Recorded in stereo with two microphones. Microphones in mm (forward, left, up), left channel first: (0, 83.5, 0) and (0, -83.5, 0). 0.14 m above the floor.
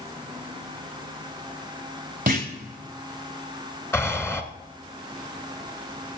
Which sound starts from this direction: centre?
Breathing, at 3.9 s.